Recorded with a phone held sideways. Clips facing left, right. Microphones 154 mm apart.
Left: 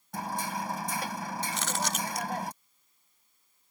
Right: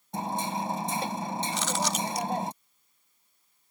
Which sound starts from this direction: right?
Hammering, at 0.1 s.